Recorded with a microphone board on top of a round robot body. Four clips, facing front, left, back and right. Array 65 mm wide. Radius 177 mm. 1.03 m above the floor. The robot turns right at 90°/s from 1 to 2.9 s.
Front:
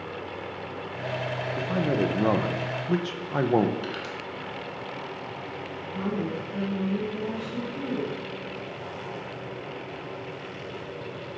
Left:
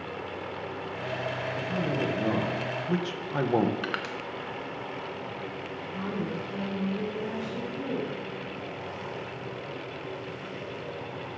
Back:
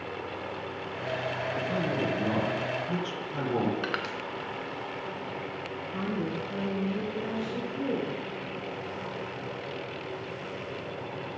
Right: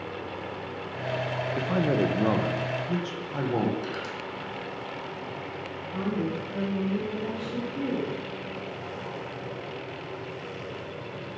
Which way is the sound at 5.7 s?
85° right.